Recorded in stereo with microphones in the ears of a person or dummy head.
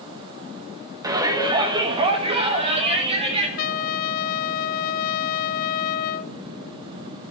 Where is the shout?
20° right (ahead or behind), 1.5 m; by 3.5 s 30° right (ahead or behind), 3 m.